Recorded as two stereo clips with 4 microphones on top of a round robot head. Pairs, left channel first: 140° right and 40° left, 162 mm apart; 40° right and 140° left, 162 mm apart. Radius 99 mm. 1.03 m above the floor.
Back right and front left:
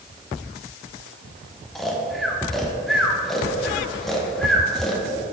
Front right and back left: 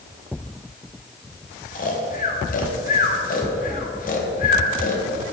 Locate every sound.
1.8 s snoring: 50° right, 1.3 m